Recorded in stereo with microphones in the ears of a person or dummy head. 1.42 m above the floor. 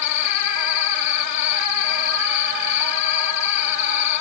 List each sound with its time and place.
0.0 s an insect: 40° left (ahead or behind)